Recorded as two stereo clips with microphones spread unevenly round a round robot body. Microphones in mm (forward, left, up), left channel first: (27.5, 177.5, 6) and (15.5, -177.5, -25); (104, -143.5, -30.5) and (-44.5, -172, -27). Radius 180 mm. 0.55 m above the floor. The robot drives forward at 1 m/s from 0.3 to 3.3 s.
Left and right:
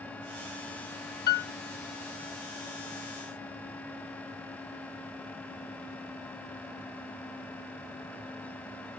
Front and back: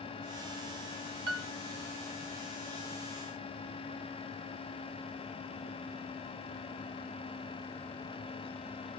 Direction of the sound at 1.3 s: 155° left.